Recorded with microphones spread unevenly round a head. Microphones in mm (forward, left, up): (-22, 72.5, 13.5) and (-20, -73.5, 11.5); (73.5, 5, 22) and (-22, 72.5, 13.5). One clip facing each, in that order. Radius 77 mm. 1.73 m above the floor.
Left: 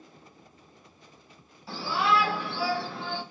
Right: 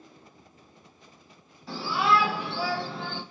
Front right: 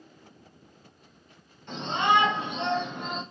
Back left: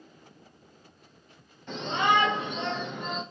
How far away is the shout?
About 1.6 m.